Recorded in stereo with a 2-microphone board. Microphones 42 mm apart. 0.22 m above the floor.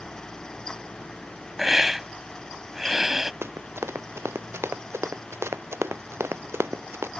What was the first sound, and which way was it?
A hiss, 10° right (ahead or behind).